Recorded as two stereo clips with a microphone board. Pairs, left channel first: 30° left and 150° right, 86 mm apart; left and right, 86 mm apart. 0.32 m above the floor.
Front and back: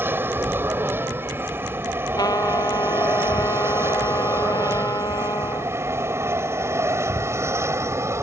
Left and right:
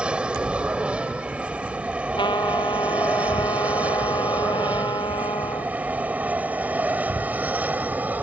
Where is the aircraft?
150° right; by 8.2 s 145° right.